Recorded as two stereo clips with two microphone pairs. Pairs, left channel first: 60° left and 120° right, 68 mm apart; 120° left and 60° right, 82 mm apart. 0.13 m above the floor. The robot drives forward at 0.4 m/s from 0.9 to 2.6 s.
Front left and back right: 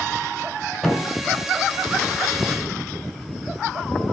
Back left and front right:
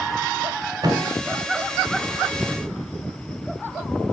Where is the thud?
30° right, 5.5 m.